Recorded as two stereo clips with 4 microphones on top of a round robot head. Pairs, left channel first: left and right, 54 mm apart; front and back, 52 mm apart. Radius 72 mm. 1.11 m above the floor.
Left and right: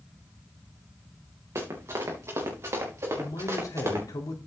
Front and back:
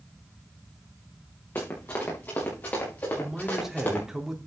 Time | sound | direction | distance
1.6 | running footsteps | 55° right | 5.5 m
3.2 | a man speaking | 100° left | 3 m